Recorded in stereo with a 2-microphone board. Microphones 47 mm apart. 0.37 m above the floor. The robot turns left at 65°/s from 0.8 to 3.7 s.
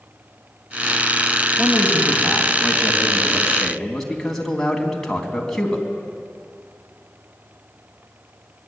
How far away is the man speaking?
About 3.5 m.